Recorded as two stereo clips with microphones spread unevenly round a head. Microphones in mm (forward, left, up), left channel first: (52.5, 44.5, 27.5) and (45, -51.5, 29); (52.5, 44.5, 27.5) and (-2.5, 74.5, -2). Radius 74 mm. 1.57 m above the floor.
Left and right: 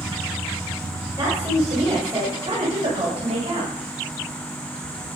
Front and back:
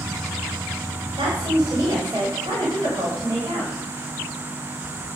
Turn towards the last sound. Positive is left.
turn(degrees=-150)